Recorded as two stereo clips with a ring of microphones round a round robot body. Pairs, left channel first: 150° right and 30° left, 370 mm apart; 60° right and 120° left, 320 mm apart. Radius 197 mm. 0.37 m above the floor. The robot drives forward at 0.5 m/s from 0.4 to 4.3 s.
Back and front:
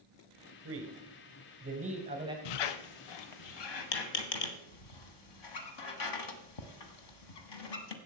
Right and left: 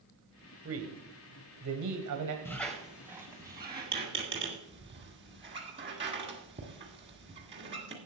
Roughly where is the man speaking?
Left.